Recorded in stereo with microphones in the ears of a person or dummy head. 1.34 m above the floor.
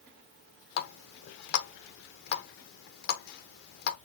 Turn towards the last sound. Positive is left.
turn(degrees=55)  # may be behind; listen again after turning